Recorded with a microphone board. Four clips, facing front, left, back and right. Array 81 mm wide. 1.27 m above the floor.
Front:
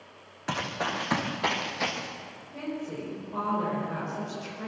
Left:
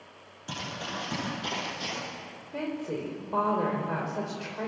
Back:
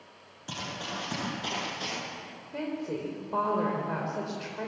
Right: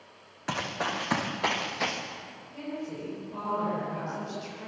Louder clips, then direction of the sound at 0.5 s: Right 5 dB, front 7 dB; 45° right.